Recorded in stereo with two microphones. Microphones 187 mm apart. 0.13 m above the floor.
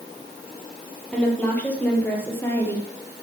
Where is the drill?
No drill in this recording.